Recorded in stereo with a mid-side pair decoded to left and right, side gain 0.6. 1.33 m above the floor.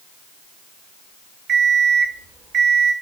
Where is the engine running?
I don't hear an engine running.